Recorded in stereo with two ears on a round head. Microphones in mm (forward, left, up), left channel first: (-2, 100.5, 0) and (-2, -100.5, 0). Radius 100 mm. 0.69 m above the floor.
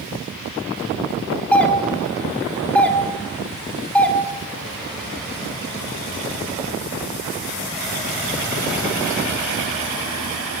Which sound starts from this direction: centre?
A doorbell, at 1.5 s.